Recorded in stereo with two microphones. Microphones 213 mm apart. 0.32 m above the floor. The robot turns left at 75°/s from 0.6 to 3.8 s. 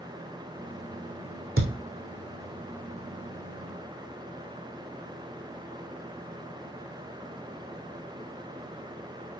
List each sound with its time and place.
1.6 s a thud: 85° right, 2.5 m; by 1.8 s 75° right (ahead or behind), 2.5 m